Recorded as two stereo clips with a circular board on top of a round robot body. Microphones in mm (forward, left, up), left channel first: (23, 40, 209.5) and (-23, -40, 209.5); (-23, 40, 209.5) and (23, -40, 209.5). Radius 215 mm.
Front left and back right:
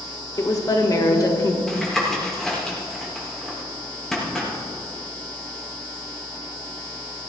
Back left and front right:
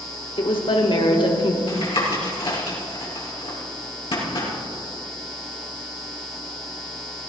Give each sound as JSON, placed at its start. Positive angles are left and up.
{"t": 0.4, "sound": "a woman speaking", "azimuth_deg": 110, "distance_m": 2.0}
{"t": 1.7, "sound": "tapping", "azimuth_deg": 145, "distance_m": 4.5}